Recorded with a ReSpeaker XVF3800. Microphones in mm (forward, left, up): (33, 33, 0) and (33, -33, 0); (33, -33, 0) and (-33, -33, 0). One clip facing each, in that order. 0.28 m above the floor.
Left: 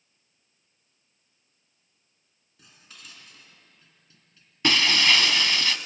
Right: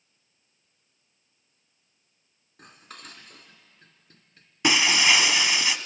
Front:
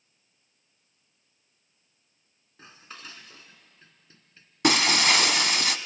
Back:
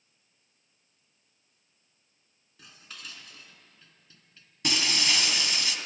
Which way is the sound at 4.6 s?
15° right.